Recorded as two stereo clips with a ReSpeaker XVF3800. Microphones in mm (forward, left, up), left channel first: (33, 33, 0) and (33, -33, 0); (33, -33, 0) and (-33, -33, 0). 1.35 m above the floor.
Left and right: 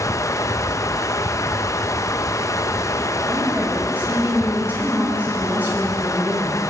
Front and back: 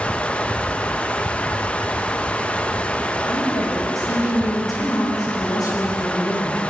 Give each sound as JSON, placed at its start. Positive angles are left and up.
{"t": 0.0, "sound": "running water", "azimuth_deg": 70, "distance_m": 0.7}
{"t": 3.3, "sound": "a woman speaking", "azimuth_deg": -20, "distance_m": 6.0}